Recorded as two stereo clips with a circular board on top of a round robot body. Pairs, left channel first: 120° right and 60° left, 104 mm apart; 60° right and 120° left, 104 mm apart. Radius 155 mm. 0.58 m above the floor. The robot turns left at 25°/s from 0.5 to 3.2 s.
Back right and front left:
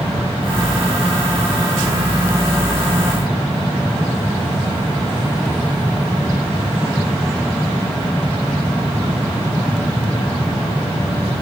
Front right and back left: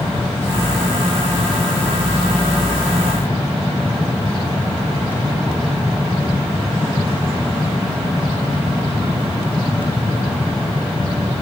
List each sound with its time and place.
Only background noise.